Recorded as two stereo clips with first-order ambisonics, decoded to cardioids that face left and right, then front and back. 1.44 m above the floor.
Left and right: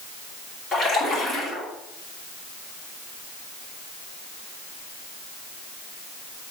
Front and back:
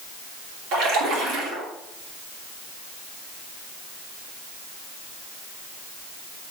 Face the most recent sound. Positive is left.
turn(degrees=165)